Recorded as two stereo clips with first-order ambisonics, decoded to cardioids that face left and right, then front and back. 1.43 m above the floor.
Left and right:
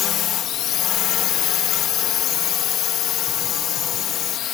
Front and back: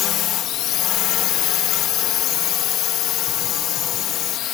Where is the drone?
40° left.